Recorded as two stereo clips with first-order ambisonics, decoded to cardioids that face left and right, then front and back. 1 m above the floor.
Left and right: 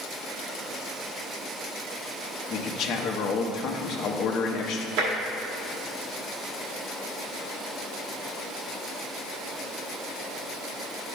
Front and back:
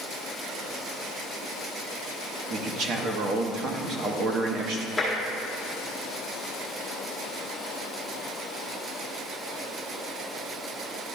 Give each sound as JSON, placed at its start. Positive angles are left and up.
{"t": 2.5, "sound": "a man speaking", "azimuth_deg": 130, "distance_m": 0.8}
{"t": 5.0, "sound": "tapping", "azimuth_deg": -90, "distance_m": 1.8}